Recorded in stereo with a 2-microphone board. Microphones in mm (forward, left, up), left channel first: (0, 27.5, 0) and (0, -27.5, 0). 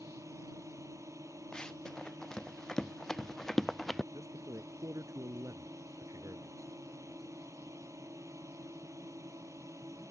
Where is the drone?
70° right (ahead or behind).